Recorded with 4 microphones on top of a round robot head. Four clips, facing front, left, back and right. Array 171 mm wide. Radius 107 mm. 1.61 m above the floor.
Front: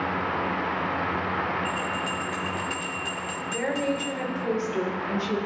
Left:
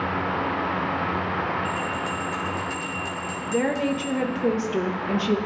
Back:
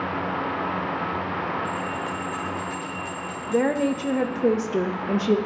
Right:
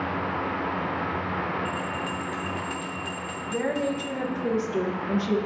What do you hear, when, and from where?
1.6 s a bell: 30° left, 1.0 m
3.5 s a woman speaking: 160° left, 0.8 m